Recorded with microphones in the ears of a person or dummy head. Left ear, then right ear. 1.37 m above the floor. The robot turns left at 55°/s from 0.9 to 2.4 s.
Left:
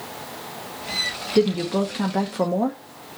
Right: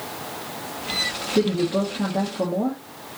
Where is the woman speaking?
160° left, 0.8 m; by 2.8 s 105° left, 0.8 m.